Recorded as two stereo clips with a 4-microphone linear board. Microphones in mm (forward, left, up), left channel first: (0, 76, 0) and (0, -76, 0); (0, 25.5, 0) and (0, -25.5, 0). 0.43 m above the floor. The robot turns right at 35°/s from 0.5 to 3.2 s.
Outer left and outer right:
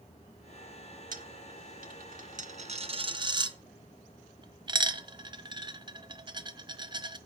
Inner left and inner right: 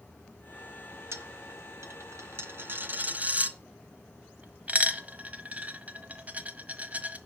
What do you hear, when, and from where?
1.1 s a dropped coin: 70° right (ahead or behind), 1.3 m; by 7.2 s 30° right (ahead or behind), 1.3 m